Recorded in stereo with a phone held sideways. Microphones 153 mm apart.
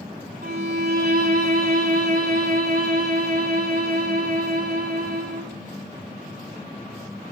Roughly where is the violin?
Right.